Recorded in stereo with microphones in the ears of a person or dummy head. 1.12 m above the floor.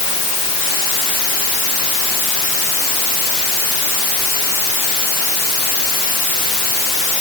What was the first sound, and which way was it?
Only background noise.